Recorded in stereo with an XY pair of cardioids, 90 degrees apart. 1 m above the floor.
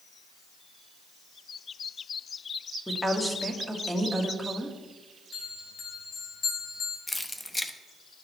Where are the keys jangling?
15° left, 0.8 m.